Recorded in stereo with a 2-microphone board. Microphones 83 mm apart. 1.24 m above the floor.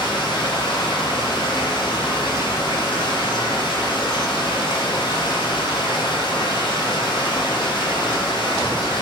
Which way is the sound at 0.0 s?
85° left.